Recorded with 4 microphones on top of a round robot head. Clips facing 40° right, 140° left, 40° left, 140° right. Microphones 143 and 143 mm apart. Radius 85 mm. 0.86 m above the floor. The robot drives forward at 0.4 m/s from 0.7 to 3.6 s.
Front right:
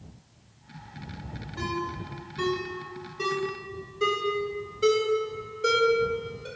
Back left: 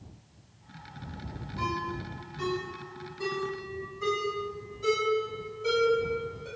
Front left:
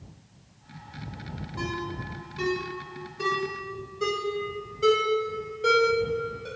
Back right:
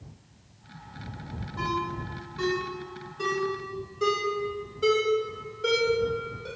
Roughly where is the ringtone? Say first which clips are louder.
Front right 1 dB, back right 2 dB; ahead right.